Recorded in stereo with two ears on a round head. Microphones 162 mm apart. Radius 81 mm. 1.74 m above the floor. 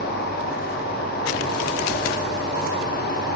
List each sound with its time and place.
0.0 s an insect: 85° left, 6.5 m